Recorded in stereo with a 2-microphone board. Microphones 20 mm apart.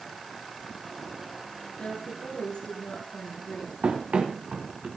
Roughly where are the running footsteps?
Right.